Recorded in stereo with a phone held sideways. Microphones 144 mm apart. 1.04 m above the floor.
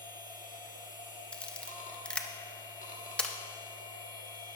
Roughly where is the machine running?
Left.